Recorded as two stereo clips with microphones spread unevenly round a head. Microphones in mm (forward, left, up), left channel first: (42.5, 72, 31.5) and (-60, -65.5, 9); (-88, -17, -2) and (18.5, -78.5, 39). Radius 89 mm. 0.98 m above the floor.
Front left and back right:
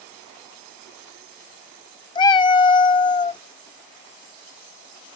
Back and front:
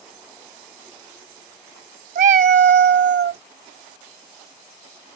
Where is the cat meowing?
10° right.